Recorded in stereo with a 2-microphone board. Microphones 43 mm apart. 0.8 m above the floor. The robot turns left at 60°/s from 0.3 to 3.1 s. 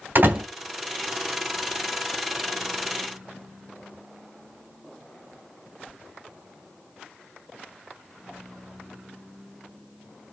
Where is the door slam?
60° right (ahead or behind), 2.5 m; by 0.4 s 65° right (ahead or behind), 2.5 m.